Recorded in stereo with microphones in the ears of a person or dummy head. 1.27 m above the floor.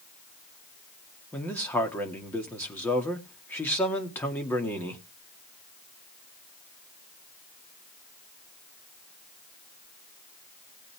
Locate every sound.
1.3 s a man speaking: 10° left (ahead or behind), 2 m